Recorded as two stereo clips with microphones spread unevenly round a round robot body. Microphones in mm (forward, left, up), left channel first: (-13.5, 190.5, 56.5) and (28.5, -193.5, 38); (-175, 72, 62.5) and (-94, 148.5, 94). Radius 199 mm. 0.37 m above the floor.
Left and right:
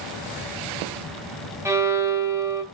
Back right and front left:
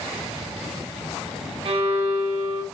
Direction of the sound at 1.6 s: 5° right.